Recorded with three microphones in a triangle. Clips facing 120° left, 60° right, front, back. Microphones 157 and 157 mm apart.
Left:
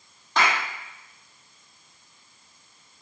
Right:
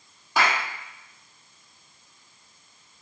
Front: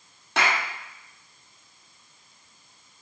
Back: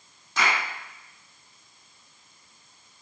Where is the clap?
20° left, 3.5 m.